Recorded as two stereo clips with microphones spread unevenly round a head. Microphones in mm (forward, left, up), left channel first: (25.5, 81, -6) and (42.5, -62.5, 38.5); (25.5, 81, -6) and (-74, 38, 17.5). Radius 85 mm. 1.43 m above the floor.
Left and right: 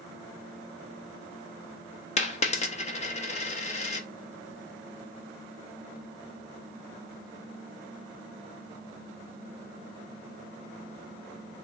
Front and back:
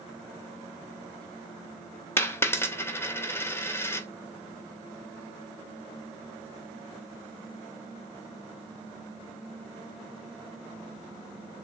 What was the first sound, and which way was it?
A dropped coin, 90° left.